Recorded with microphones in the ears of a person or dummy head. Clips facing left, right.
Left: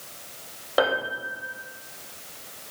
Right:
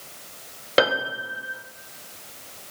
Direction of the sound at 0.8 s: 30° right (ahead or behind).